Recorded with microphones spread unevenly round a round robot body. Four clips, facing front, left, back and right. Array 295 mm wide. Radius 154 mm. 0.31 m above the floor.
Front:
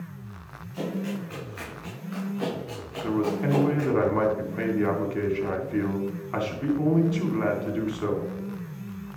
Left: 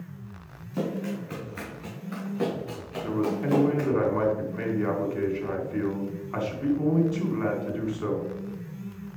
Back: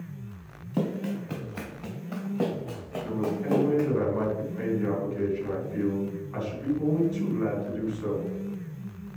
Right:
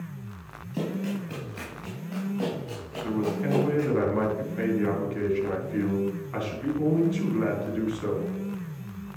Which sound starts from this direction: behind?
Running footsteps, at 0.7 s.